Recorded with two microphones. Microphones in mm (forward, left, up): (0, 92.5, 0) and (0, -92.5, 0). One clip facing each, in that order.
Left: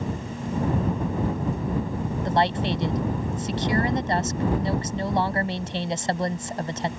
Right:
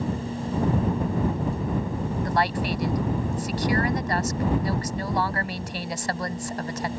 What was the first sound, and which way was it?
A woman speaking, 25° left (ahead or behind).